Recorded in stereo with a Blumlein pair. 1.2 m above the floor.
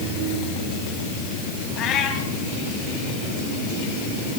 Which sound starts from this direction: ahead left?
A cat meowing, at 1.8 s.